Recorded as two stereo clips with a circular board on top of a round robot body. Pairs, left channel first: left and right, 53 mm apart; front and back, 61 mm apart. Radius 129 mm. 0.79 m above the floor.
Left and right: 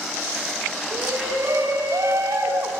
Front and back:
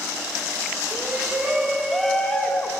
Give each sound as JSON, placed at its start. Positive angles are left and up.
{"t": 0.9, "sound": "a shout", "azimuth_deg": -115, "distance_m": 3.5}